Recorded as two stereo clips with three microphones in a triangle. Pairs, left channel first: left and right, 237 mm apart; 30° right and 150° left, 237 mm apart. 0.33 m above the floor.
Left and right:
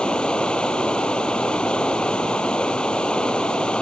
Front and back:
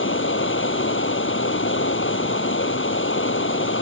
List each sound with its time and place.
0.0 s running water: 5° left